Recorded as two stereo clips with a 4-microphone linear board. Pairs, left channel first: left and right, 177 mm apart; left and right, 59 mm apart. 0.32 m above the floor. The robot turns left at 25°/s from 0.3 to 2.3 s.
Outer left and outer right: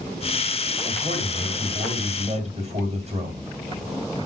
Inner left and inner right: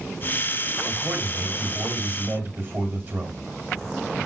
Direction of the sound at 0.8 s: 65° right.